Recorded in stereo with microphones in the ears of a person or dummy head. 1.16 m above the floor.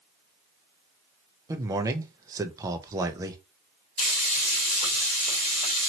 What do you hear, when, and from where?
1.5 s a man speaking: 15° right (ahead or behind), 0.5 m
4.0 s frying: 35° left (ahead or behind), 1.6 m